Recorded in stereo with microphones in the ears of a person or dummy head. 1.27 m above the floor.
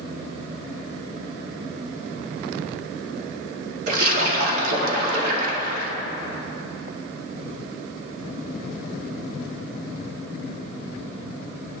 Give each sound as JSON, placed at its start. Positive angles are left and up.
{"t": 3.9, "sound": "a splash", "side_deg": -55, "distance_m": 2.5}